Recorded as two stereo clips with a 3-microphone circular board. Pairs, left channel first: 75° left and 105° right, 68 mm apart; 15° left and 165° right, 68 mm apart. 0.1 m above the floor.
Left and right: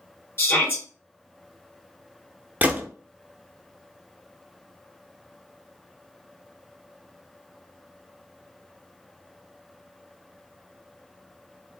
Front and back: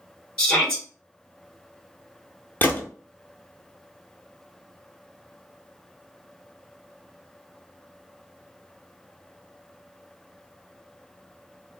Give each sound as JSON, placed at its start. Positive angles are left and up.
{"t": 0.4, "sound": "a shout", "azimuth_deg": 80, "distance_m": 1.6}
{"t": 2.6, "sound": "a gunshot", "azimuth_deg": -40, "distance_m": 0.5}